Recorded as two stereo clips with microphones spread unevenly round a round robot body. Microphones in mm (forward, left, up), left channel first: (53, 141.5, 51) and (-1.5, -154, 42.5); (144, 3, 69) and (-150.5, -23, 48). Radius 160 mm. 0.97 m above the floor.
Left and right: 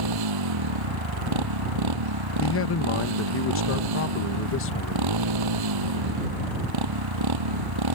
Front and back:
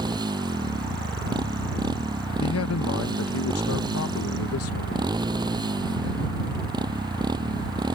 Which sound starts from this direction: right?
A motorcycle, at 0.0 s.